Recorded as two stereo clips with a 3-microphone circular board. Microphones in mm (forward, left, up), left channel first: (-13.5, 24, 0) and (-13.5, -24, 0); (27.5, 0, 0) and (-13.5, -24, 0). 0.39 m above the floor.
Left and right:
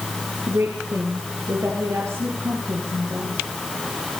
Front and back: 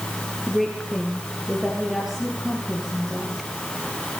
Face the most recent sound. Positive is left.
turn(degrees=-70)